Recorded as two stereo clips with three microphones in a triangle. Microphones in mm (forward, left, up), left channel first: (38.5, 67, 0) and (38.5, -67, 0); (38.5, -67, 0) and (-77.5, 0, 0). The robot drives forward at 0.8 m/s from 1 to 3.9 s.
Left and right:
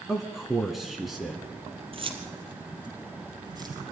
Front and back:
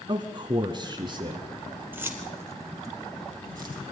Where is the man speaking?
175° right, 1.4 m; by 1.5 s straight behind, 1.7 m.